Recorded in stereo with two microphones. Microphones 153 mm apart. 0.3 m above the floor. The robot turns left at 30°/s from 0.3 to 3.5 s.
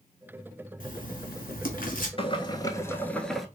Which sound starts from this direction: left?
Writing, at 0.8 s.